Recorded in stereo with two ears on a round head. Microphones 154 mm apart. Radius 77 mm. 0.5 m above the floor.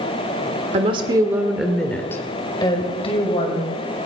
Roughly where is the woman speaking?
Right.